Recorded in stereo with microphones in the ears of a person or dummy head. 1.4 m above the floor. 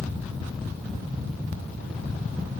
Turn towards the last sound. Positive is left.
No sound to turn to.